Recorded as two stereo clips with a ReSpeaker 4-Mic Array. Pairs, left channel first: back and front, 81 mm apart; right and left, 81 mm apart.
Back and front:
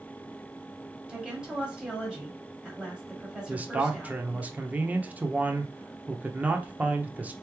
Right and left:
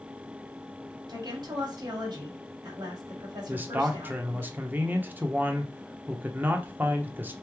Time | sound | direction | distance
1.1 | a woman speaking | 80° left | 1.9 m
3.5 | a man speaking | 50° left | 0.7 m